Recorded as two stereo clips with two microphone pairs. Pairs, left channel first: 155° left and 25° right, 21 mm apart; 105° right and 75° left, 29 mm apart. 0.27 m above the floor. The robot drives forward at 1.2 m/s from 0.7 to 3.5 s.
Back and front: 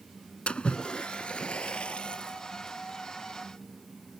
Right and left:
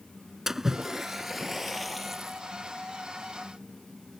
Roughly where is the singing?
I don't hear singing.